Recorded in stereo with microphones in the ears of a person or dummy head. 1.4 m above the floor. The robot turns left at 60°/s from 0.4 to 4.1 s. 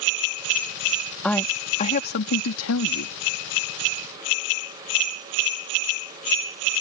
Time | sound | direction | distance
1.2 | a woman speaking | 175° right | ?